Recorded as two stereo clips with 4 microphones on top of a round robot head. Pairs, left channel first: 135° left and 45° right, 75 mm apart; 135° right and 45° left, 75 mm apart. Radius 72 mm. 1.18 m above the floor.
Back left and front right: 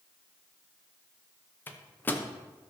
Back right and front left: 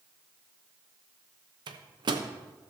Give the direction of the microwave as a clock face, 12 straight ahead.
10 o'clock.